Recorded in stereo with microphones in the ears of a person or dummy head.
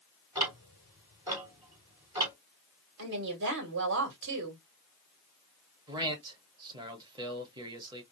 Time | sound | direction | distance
0.3 | ticking | 15° right (ahead or behind) | 2.0 m
3.0 | a woman speaking | 65° right (ahead or behind) | 2 m
5.9 | a man speaking | 25° right (ahead or behind) | 1.2 m